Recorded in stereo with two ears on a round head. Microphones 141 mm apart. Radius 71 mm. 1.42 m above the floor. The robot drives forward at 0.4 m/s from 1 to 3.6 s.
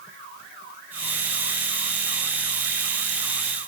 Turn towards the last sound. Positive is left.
No sound to turn to.